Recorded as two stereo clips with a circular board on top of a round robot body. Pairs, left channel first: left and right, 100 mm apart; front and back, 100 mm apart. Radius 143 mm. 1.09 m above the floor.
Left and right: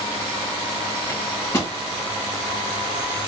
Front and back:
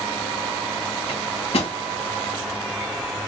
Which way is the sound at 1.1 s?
20° left.